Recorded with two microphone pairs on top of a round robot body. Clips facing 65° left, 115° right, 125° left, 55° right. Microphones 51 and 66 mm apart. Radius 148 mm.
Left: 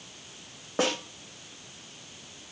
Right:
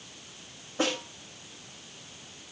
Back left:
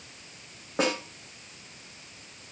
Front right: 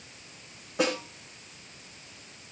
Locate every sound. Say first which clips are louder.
0.8 s a snare drum: left 2 dB, even; 75° left, 9 m